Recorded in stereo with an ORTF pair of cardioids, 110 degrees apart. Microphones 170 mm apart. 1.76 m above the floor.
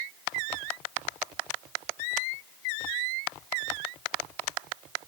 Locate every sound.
Only background noise.